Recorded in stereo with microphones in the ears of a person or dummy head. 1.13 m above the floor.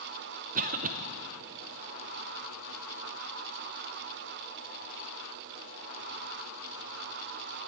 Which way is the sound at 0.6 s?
40° right (ahead or behind).